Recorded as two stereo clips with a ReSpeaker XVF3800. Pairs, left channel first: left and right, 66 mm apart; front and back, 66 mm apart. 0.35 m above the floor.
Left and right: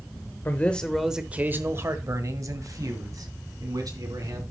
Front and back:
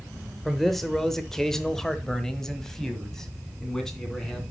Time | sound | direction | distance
0.5 | a man speaking | 85° left | 0.9 m